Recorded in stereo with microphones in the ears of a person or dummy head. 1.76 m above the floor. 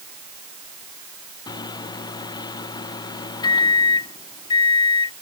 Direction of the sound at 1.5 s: 25° left (ahead or behind).